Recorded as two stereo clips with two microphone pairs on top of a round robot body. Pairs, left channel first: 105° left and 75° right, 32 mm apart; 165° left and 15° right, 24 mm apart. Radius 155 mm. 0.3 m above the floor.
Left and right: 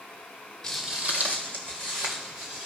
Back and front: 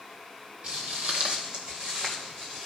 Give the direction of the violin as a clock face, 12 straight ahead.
I don't hear a violin.